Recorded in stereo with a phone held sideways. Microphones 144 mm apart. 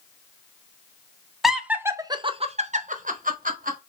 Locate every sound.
1.4 s laughter: centre (ahead or behind), 0.7 m; by 3.8 s 70° right (ahead or behind), 1.0 m